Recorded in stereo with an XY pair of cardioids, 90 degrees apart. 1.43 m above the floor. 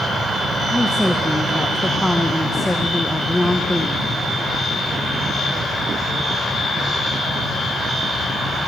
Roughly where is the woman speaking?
Ahead.